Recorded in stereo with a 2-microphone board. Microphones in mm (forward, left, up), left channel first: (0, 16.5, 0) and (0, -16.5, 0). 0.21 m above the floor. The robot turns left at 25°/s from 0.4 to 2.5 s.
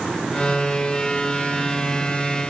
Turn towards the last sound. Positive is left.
No sound to turn to.